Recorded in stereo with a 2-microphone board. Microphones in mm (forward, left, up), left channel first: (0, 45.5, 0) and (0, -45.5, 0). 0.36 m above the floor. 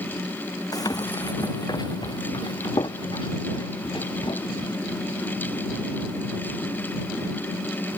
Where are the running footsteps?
45° left (ahead or behind); by 4.8 s 65° left (ahead or behind).